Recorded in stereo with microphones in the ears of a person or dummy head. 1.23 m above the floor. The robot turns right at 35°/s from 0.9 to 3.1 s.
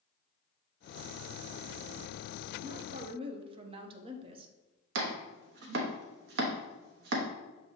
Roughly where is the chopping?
Right.